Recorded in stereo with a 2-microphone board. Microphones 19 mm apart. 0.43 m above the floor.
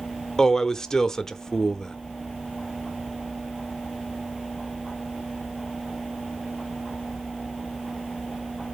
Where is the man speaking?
20° left (ahead or behind), 0.9 m.